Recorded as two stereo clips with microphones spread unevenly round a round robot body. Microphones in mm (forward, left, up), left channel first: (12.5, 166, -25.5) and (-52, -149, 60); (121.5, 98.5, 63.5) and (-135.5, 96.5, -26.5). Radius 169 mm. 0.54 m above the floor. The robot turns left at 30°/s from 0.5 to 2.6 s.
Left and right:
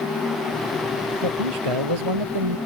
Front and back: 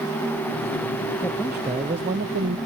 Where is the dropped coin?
I don't hear a dropped coin.